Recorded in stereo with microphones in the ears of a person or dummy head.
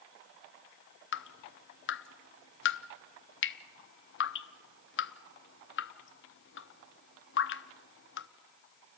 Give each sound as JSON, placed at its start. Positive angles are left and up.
{"t": 1.1, "sound": "dripping", "side_deg": 75, "distance_m": 0.6}